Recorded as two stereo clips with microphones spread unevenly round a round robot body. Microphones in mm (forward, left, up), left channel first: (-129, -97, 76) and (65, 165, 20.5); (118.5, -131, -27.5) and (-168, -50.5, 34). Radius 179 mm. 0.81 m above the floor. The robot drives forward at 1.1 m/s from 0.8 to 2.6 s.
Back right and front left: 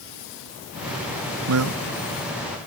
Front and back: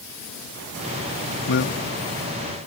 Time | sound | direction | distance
1.5 | a man speaking | 25° left | ?